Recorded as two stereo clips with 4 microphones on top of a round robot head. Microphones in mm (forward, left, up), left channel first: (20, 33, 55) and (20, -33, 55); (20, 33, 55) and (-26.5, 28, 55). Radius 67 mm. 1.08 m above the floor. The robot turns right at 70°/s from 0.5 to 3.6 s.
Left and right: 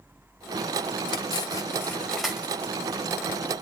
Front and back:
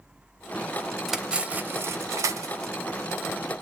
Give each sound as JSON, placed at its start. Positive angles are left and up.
{"t": 1.1, "sound": "cutlery clinking", "azimuth_deg": 100, "distance_m": 0.6}